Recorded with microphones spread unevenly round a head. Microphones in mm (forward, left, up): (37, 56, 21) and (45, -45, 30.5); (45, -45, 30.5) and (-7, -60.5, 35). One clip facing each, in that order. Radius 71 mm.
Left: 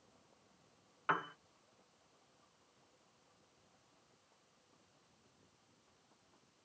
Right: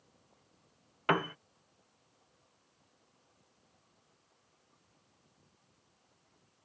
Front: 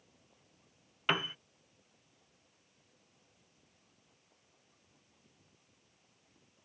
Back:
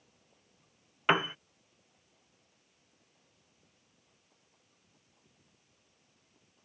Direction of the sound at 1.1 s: 110° right.